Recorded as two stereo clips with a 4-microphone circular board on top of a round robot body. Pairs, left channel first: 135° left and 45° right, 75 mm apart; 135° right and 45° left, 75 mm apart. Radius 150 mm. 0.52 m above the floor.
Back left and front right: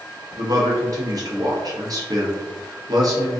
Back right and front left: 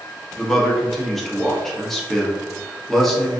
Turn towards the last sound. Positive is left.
turn(degrees=-50)